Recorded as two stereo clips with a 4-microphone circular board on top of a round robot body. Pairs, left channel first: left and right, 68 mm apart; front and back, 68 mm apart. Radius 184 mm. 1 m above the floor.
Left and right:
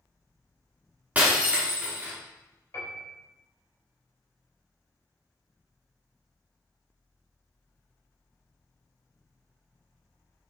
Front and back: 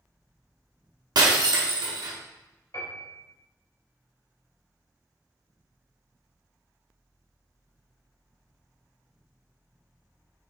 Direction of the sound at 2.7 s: 40° left.